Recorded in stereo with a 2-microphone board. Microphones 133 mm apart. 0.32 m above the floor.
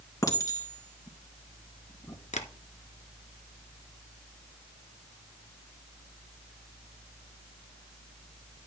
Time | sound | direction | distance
0.2 | a clink | 25° left (ahead or behind) | 3 m
2.3 | tapping | 60° left (ahead or behind) | 1.3 m